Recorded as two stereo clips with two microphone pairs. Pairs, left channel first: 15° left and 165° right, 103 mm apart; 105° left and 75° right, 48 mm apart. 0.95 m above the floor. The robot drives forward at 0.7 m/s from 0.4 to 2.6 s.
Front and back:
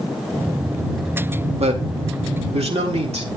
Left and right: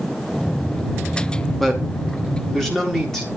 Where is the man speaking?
175° right, 1.1 m.